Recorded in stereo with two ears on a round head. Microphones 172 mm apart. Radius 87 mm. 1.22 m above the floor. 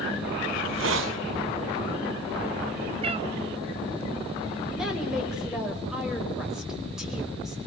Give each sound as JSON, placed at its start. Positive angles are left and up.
{"t": 0.5, "sound": "a hiss", "side_deg": -70, "distance_m": 1.7}
{"t": 3.0, "sound": "a cat meowing", "side_deg": -30, "distance_m": 0.8}
{"t": 4.7, "sound": "a woman speaking", "side_deg": -5, "distance_m": 5.0}